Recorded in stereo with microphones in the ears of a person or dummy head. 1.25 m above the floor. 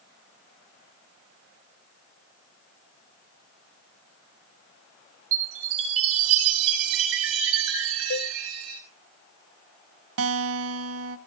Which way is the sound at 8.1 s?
60° left (ahead or behind).